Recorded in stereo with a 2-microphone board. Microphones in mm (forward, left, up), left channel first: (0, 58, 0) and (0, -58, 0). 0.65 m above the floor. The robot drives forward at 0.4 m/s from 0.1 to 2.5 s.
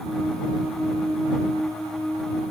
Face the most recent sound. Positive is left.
No sound to turn to.